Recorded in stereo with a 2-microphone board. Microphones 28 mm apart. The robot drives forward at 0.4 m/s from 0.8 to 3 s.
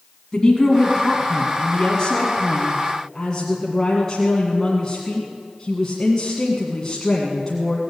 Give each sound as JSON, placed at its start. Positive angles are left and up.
{"t": 0.3, "sound": "a woman speaking", "side_deg": 25, "distance_m": 1.6}